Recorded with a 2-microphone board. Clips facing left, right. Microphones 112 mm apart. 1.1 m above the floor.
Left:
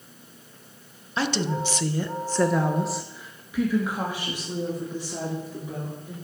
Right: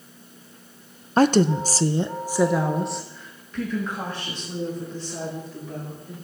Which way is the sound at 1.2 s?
45° right (ahead or behind).